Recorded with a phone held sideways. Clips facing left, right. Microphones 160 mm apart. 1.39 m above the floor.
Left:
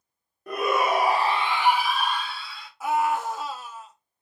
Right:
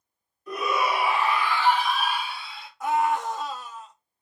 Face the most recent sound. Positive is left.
turn(degrees=5)  # may be behind; listen again after turning